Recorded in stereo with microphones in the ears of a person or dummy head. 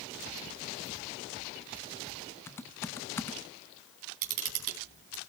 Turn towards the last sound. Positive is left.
turn(degrees=-45)  # may be behind; listen again after turning